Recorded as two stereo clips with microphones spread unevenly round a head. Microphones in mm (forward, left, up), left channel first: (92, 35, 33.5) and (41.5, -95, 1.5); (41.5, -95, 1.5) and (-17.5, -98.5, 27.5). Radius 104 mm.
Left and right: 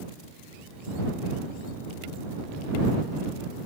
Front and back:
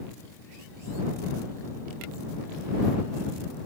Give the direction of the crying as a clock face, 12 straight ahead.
No crying in this recording.